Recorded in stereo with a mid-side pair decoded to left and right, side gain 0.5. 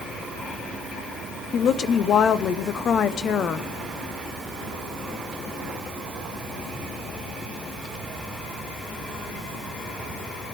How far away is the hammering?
I don't hear hammering.